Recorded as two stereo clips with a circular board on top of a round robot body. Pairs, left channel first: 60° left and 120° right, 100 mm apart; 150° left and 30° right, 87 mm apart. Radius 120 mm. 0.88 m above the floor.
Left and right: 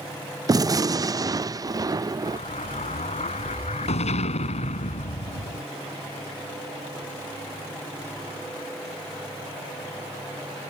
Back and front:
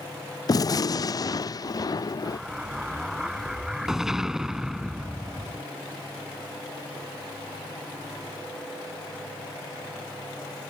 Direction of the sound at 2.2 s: 55° left.